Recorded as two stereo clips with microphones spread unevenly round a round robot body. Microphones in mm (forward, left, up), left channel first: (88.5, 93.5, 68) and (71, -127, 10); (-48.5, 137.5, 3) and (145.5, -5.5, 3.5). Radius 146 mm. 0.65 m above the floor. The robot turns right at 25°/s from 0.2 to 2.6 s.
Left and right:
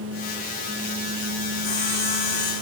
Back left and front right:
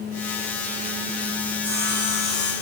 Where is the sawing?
40° left, 8 m; by 2.5 s 60° left, 8 m.